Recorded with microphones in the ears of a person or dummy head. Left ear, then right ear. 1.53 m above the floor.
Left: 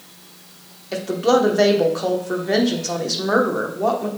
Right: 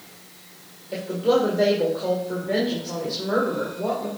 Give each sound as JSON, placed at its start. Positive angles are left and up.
{"t": 0.9, "sound": "a woman speaking", "side_deg": 75, "distance_m": 1.2}